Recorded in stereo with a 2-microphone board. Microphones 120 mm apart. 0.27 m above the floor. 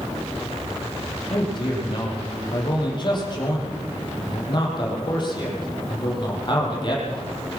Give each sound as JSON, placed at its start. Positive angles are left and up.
{"t": 1.3, "sound": "a man speaking", "side_deg": 40, "distance_m": 9.5}